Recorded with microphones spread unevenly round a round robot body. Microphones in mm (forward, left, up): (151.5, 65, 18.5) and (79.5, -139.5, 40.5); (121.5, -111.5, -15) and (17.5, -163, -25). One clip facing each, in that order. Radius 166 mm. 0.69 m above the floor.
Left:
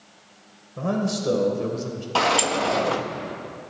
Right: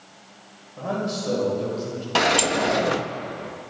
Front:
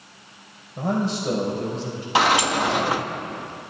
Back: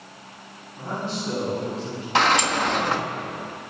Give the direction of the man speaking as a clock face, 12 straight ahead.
10 o'clock.